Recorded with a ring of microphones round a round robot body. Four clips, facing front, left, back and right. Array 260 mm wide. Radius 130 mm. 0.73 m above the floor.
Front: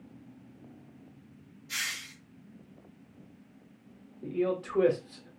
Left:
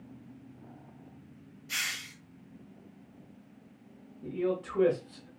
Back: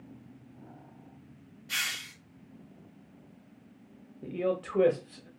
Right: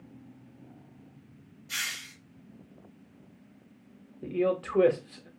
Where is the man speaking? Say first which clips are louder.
Right 4 dB, front 1 dB; 105° right, 1.0 m.